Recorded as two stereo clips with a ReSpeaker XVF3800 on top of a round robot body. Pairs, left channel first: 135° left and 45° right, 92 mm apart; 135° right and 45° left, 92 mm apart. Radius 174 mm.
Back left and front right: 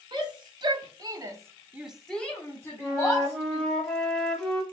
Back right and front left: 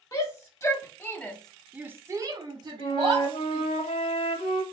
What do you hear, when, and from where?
0.1 s a shout: 85° right, 2 m; by 3.7 s 80° left, 2.5 m
2.8 s a flute: 135° right, 1.3 m